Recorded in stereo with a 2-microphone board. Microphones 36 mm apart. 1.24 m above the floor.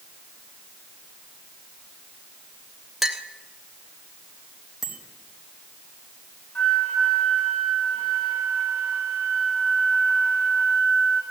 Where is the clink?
5° right (ahead or behind), 1.4 m.